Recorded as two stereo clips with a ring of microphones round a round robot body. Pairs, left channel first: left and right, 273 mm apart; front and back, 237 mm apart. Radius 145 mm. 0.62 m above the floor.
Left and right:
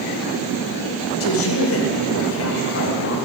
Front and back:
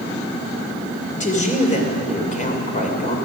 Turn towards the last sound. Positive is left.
turn(degrees=55)